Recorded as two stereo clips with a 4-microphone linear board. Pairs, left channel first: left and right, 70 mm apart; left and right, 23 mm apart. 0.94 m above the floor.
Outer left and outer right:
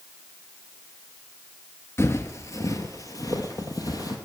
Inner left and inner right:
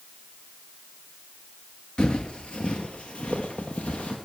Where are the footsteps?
40° left (ahead or behind), 1.1 m; by 4.2 s 60° left (ahead or behind), 2 m.